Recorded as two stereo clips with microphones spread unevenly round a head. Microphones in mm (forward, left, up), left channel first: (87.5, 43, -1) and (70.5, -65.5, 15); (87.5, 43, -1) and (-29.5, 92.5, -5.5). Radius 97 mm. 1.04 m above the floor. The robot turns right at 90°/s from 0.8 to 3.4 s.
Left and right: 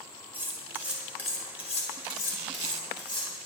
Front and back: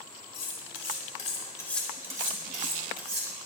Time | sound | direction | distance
0.3 | cutlery clinking | 30° right | 2.5 m